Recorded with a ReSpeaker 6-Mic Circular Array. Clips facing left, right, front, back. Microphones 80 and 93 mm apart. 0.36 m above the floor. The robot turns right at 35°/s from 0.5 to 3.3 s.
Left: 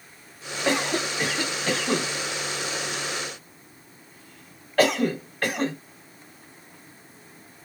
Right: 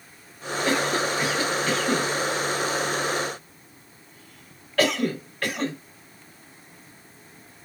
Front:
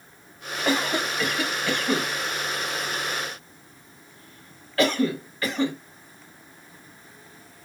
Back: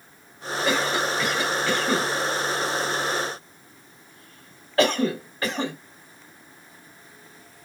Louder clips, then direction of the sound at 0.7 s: Right 1 dB, back 1 dB; 50° left.